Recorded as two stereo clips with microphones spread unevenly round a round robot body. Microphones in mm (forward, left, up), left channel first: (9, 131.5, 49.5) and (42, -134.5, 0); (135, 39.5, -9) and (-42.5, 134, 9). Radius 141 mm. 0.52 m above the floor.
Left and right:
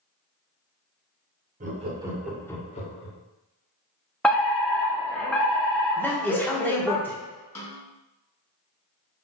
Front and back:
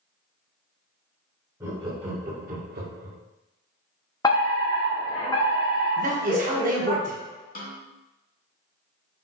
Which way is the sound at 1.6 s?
130° right.